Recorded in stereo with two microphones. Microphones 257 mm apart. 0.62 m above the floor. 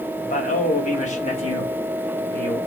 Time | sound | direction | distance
0.2 | a man speaking | 30° left (ahead or behind) | 1.2 m